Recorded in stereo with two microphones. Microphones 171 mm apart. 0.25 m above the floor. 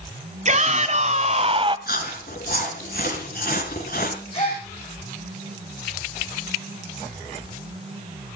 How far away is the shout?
About 2 m.